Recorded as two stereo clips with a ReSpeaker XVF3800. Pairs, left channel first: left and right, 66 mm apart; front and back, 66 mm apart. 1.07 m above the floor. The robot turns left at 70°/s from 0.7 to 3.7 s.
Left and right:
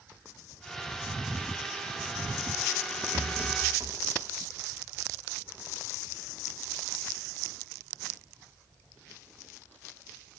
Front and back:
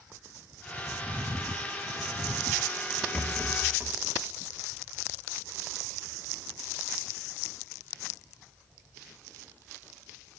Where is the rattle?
75° right, 1.2 m; by 4.0 s 115° right, 1.2 m.